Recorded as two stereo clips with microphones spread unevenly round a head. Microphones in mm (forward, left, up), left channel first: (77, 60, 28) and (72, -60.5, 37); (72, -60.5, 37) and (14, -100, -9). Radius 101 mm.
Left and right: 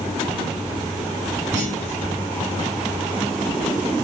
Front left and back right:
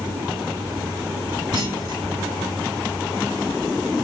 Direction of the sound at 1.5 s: 120° right.